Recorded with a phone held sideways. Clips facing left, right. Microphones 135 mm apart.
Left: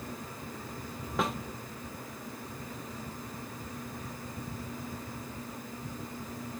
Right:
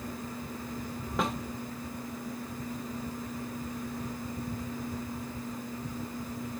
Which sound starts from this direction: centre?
A snare drum, at 1.2 s.